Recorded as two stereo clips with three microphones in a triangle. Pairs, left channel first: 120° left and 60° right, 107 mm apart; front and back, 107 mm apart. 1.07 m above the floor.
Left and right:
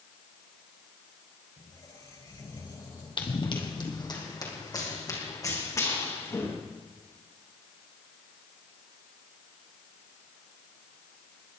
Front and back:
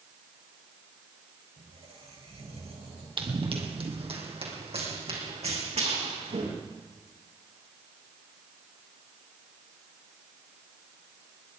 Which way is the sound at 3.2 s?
155° left.